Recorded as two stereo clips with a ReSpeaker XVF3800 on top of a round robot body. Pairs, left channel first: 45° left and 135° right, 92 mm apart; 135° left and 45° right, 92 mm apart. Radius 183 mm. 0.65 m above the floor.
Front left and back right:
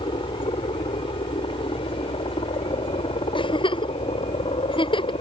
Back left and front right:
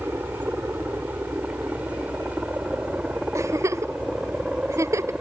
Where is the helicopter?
25° left; by 5.2 s 35° left.